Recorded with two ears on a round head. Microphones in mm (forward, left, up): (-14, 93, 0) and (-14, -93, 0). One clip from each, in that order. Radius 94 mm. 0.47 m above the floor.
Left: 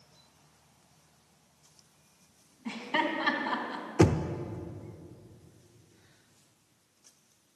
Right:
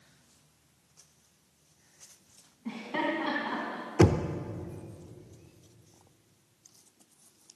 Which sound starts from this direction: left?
Laughter, at 2.6 s.